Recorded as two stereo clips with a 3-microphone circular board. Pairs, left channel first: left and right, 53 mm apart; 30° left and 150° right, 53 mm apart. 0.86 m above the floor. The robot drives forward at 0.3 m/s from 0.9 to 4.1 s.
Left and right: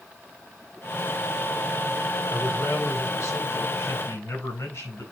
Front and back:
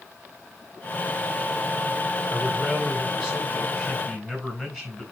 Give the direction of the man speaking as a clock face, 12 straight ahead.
8 o'clock.